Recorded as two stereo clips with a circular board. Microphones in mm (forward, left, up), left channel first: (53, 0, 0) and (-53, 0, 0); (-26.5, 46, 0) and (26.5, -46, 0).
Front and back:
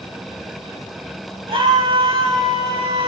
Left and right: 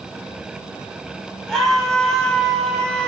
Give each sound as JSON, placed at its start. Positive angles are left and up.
{"t": 1.5, "sound": "a scream", "azimuth_deg": -155, "distance_m": 6.0}